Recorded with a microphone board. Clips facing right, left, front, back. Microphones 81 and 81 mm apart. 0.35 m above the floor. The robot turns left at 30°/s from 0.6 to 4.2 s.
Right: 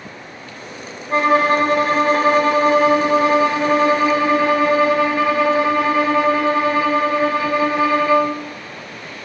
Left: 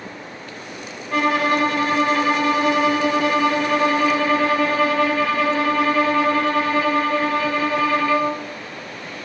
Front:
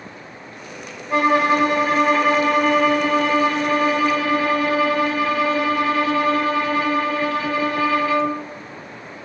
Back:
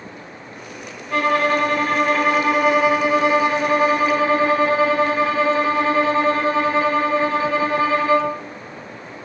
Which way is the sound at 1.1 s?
55° right.